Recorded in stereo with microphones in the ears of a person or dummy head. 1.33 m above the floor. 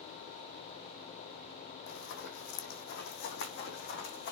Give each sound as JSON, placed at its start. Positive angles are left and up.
{"t": 1.9, "sound": "running footsteps", "side_deg": 65, "distance_m": 3.5}